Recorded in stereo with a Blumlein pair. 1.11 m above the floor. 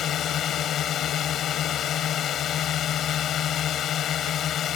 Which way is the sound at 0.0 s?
30° left.